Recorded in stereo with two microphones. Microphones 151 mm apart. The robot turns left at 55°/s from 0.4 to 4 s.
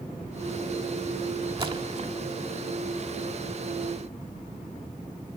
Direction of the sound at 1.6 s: 35° right (ahead or behind).